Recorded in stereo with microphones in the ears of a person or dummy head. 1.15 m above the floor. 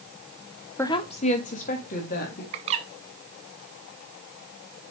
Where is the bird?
25° right (ahead or behind), 0.6 m.